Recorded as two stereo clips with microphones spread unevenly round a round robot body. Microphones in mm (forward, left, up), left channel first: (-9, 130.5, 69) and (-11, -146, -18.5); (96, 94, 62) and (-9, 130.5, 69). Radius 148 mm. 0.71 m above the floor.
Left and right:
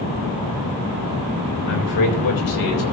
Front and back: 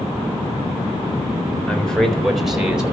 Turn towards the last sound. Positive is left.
turn(degrees=80)